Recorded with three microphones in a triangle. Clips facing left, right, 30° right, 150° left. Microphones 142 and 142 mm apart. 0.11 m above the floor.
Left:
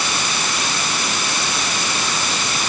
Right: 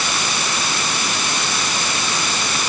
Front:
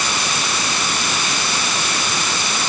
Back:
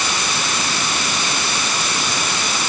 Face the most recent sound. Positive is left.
No sound to turn to.